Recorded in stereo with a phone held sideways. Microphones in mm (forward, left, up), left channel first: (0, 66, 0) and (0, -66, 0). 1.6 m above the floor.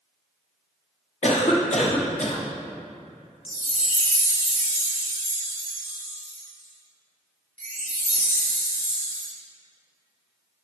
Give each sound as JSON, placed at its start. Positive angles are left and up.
{"t": 1.2, "sound": "a cough", "side_deg": 60, "distance_m": 1.1}
{"t": 3.5, "sound": "a chime", "side_deg": -70, "distance_m": 2.0}